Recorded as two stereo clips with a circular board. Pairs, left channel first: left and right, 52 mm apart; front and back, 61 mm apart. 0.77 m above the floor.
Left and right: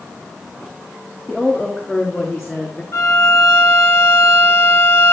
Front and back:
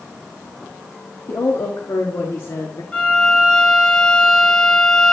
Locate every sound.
1.3 s a woman speaking: 5° right, 0.9 m; by 2.8 s 5° left, 1.8 m
2.9 s a violin: 70° left, 1.4 m